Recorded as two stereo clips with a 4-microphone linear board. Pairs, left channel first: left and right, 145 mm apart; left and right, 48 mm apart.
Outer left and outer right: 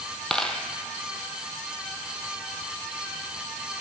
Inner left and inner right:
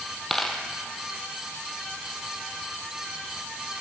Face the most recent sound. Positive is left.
turn(degrees=5)  # may be behind; listen again after turning